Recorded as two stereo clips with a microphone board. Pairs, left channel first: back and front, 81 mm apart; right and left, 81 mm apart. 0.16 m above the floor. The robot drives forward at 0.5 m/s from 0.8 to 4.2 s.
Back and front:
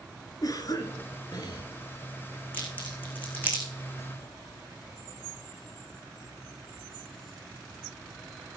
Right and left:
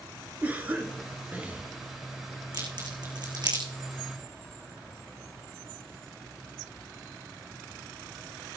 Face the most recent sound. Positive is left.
turn(degrees=115)